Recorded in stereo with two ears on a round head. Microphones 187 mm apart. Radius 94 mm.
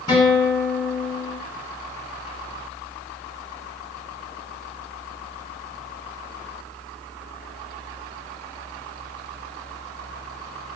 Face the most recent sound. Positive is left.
turn(degrees=20)  # may be behind; listen again after turning